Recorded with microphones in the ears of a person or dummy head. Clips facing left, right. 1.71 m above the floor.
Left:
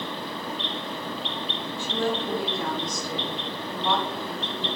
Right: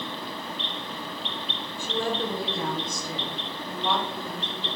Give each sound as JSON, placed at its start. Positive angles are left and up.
{"t": 1.8, "sound": "a woman speaking", "side_deg": -50, "distance_m": 1.5}